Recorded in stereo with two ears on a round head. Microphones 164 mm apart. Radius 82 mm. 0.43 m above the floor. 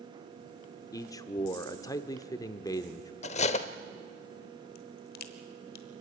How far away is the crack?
About 1.3 m.